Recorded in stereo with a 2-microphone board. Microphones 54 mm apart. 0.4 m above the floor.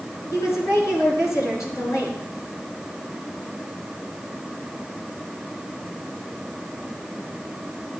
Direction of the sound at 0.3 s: 75° left (ahead or behind).